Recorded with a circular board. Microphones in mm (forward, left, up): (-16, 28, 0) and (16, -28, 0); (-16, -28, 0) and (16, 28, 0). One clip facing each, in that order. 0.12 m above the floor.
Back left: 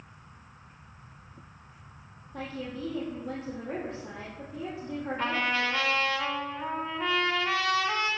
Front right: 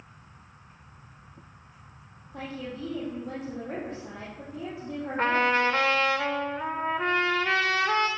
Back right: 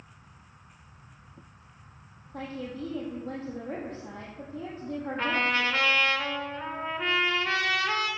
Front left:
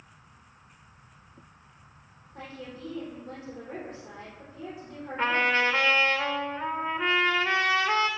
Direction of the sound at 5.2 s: 20° right.